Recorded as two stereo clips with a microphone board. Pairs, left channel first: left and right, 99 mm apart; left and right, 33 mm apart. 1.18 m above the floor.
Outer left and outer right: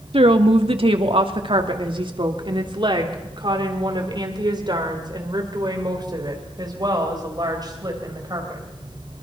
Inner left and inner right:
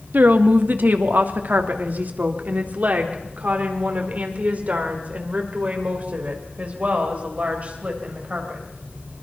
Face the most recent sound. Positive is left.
turn(degrees=-40)  # may be behind; listen again after turning